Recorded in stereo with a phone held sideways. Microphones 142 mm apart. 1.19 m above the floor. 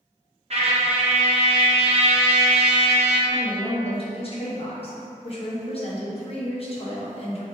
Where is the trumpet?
45° right (ahead or behind), 0.5 m.